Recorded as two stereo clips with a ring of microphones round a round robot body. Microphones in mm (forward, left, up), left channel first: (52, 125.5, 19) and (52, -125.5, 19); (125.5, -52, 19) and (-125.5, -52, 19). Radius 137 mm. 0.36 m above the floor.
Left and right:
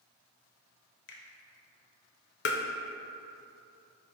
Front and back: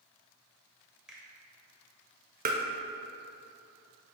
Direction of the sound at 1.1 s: 95° left.